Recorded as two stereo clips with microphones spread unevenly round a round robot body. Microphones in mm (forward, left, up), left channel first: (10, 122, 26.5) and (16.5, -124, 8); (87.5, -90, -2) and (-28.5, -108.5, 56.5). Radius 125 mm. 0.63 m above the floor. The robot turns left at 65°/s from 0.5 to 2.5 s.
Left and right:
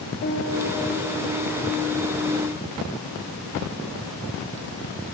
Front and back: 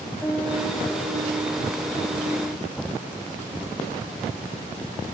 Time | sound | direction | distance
0.2 | a piano | 75° left | 1.0 m